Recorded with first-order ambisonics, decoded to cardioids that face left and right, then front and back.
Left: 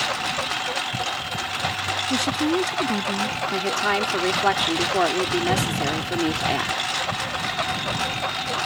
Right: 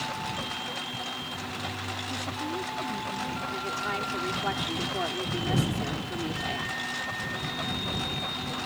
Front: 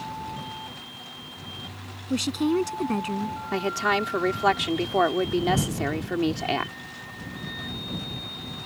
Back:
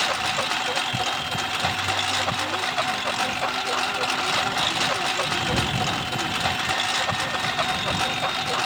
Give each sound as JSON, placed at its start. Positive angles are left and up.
{"t": 0.0, "sound": "a lawn mower", "azimuth_deg": 150}
{"t": 2.1, "sound": "a woman speaking", "azimuth_deg": 40}
{"t": 3.5, "sound": "a woman speaking", "azimuth_deg": 35}